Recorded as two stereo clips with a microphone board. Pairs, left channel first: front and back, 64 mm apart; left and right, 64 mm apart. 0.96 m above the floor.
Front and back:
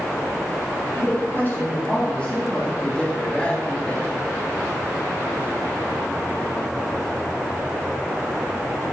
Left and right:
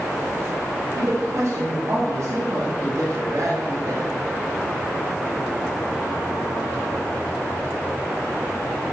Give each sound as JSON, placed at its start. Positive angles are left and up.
{"t": 0.9, "sound": "a woman speaking", "azimuth_deg": -55, "distance_m": 3.0}
{"t": 2.8, "sound": "a man speaking", "azimuth_deg": -70, "distance_m": 1.8}